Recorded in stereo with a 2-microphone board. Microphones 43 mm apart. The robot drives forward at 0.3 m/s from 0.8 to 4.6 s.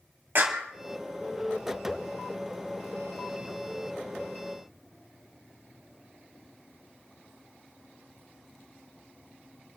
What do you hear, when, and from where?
0.3 s a clap: 60° right (ahead or behind), 1.8 m